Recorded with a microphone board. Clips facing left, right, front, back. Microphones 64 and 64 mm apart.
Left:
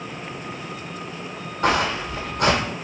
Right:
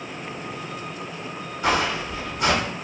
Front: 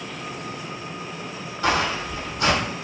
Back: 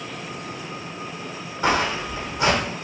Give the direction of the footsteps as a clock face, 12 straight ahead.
8 o'clock.